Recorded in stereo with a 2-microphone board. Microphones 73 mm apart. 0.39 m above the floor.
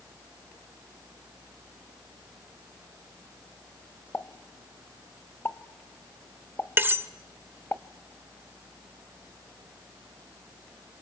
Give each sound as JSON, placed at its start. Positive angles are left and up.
{"t": 4.1, "sound": "a pop", "side_deg": 35, "distance_m": 0.6}
{"t": 6.8, "sound": "cutlery clinking", "side_deg": -30, "distance_m": 0.6}